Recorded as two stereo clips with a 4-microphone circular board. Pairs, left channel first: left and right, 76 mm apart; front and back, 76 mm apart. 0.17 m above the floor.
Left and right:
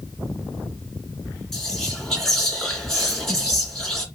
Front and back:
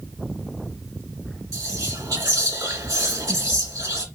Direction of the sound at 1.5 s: 175° left.